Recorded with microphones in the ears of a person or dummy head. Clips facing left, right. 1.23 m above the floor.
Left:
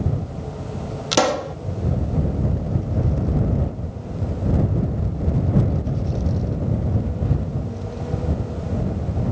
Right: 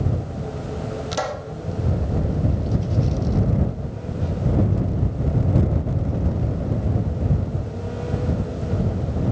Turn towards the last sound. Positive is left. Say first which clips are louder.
# left 13 dB
turn(degrees=75)  # may be behind; listen again after turning